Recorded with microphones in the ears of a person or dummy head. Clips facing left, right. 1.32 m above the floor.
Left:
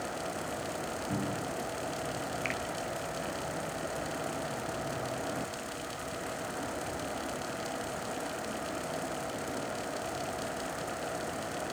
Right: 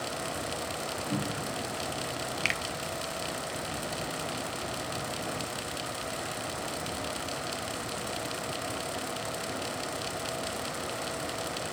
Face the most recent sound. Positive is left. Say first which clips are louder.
# left 1 dB
turn(degrees=-60)  # may be behind; listen again after turning